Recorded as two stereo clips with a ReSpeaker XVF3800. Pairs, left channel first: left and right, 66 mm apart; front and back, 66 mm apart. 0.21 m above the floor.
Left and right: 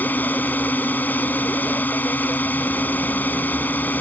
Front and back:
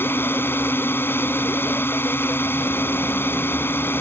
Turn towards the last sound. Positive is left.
turn(degrees=40)